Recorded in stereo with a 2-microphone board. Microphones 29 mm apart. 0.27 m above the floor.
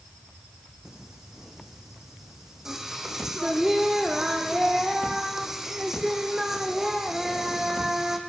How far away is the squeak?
I don't hear a squeak.